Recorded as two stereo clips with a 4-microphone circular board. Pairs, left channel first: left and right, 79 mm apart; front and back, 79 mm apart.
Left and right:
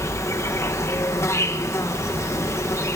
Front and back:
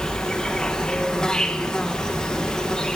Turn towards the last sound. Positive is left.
turn(degrees=75)